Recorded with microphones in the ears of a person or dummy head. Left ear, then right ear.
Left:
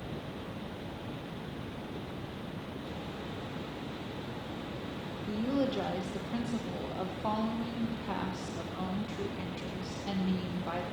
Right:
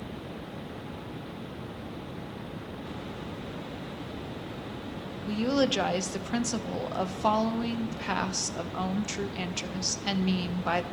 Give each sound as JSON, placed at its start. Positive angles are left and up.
{"t": 5.3, "sound": "a woman speaking", "side_deg": -60, "distance_m": 0.9}